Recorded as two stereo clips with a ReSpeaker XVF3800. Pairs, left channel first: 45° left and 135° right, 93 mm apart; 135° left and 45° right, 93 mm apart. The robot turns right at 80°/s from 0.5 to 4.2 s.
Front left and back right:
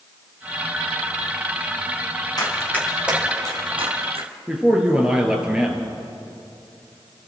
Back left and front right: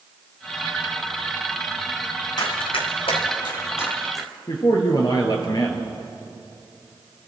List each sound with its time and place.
2.4 s running footsteps: 90° left, 4 m; by 4.4 s 135° right, 2.5 m
4.5 s a man speaking: 145° left, 1.6 m